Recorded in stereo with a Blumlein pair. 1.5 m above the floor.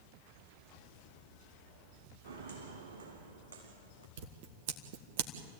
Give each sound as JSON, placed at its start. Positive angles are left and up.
{"t": 2.2, "sound": "footsteps", "azimuth_deg": -55, "distance_m": 5.0}
{"t": 4.2, "sound": "scissors", "azimuth_deg": -50, "distance_m": 2.0}